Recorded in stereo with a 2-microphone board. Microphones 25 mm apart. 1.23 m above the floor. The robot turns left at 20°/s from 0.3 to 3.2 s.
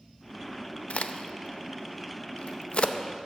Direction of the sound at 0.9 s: 50° left (ahead or behind).